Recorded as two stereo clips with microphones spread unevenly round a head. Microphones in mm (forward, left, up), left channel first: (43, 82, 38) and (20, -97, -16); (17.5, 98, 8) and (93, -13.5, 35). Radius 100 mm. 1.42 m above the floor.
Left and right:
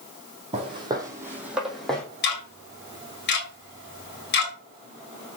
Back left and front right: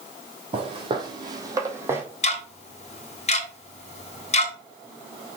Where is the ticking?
85° left, 2 m.